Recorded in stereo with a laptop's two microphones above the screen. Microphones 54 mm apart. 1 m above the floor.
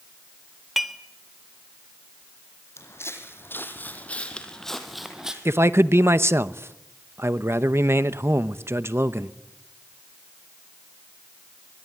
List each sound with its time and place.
0.8 s dishes clattering: centre (ahead or behind), 0.9 m
2.8 s footsteps: 55° left (ahead or behind), 3 m; by 5.3 s 15° right (ahead or behind), 2.5 m
5.5 s a man speaking: 50° right (ahead or behind), 0.8 m